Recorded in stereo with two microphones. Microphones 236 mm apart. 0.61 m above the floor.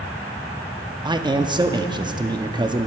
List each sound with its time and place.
1.1 s a man speaking: 20° right (ahead or behind), 0.6 m